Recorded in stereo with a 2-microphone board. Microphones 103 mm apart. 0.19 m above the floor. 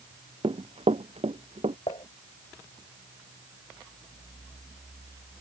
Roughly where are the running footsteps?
Right.